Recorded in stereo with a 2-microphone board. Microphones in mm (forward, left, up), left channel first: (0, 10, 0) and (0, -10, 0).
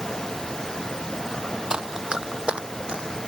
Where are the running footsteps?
45° right (ahead or behind); by 3.1 s 60° right (ahead or behind).